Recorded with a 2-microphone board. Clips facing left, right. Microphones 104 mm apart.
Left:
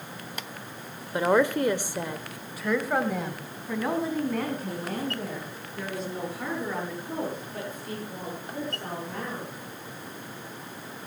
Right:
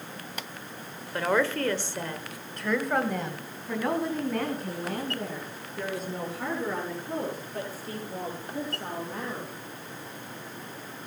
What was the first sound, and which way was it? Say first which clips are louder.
A woman speaking: left 3 dB; 15° left (ahead or behind).